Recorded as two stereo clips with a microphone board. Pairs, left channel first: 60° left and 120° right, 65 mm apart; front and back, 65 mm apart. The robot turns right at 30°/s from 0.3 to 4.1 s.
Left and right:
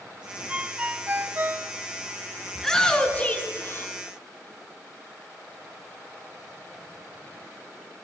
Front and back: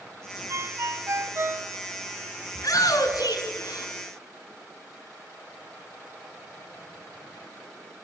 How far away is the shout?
About 3.5 m.